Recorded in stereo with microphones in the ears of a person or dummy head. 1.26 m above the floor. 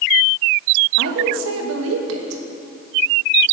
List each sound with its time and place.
1.0 s a woman speaking: 85° right, 1.2 m